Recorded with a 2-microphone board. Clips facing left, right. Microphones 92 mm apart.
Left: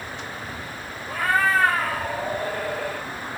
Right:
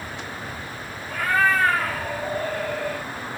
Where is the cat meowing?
30° left (ahead or behind), 2.0 m.